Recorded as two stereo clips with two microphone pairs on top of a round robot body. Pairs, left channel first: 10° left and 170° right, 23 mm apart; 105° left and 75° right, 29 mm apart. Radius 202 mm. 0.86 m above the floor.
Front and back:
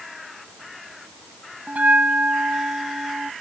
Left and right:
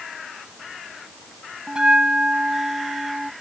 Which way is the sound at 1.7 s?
145° right.